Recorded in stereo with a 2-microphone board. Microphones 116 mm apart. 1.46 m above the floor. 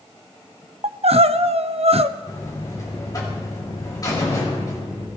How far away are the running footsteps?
I don't hear running footsteps.